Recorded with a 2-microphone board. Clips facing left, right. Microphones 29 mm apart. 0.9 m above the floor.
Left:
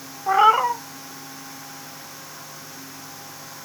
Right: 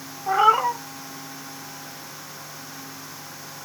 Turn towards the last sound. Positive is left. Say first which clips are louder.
# left 2 dB
turn(degrees=15)  # may be behind; listen again after turning